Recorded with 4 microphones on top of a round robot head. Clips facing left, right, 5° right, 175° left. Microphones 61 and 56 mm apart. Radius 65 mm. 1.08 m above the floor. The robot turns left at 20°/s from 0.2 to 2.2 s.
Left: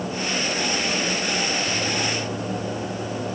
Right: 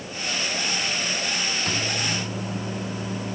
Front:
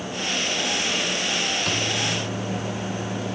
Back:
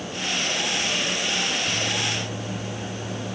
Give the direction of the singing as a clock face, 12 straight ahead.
I don't hear singing.